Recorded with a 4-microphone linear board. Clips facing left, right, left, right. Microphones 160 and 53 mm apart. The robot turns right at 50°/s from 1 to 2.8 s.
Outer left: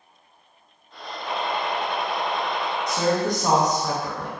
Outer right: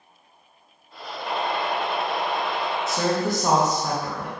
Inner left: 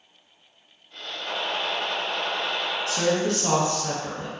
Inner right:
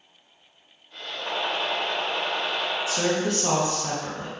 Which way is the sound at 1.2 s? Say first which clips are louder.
Outer right 1 dB, inner right 1 dB; 90° right.